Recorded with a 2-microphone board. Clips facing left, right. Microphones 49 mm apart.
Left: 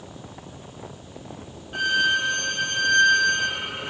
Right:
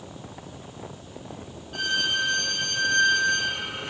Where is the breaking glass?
No breaking glass in this recording.